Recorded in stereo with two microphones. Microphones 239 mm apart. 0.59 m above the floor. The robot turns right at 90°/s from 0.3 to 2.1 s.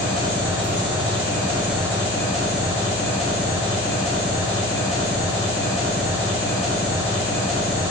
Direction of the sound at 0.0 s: 135° right.